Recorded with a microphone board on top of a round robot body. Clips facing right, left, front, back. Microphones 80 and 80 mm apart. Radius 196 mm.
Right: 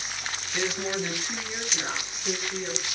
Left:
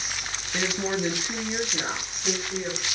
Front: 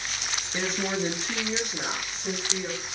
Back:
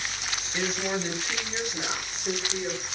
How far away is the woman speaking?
About 1.1 m.